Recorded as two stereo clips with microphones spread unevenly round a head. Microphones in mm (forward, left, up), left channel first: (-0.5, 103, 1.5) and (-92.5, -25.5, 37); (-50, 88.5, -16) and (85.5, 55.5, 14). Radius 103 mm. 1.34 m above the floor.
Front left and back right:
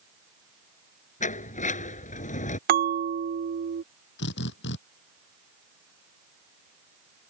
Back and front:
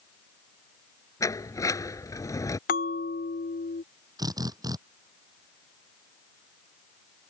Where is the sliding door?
95° left.